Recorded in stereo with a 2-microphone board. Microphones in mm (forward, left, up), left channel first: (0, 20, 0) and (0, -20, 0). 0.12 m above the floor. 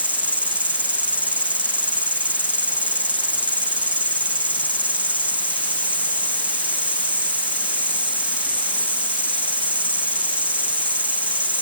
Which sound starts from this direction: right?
An insect, at 0.0 s.